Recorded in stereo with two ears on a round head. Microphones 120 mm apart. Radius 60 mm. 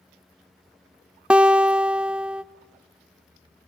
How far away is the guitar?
About 0.6 m.